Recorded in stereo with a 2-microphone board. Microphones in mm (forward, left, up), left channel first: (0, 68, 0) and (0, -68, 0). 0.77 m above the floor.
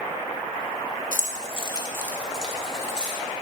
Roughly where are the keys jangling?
Left.